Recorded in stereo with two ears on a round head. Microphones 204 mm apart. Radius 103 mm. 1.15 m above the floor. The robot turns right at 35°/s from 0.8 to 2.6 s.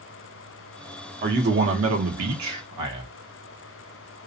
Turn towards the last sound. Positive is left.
turn(degrees=-85)